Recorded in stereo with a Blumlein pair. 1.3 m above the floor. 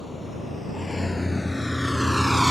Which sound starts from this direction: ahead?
A vehicle, at 0.0 s.